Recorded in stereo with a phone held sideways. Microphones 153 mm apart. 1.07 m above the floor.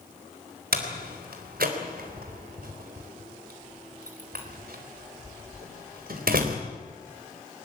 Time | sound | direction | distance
0.7 | a door slam | 85° right | 3.5 m